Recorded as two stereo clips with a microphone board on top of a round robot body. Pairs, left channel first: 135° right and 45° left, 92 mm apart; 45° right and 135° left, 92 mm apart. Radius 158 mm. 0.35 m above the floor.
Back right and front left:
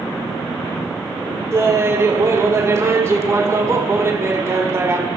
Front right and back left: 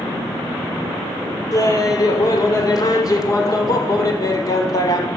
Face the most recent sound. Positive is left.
turn(degrees=-5)